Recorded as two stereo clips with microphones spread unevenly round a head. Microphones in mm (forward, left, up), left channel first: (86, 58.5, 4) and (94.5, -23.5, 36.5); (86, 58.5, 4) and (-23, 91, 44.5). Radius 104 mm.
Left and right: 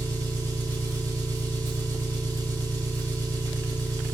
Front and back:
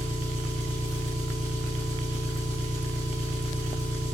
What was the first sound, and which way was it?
An engine running, 125° right.